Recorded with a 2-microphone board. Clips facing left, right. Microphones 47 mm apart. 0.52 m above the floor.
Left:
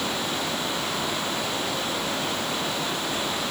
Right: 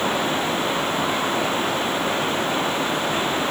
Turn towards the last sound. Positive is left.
No sound to turn to.